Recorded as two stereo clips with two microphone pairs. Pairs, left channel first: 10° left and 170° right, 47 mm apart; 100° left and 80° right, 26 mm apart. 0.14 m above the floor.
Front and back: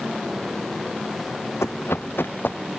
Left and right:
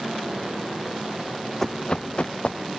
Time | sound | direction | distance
1.6 | running footsteps | 25° left | ?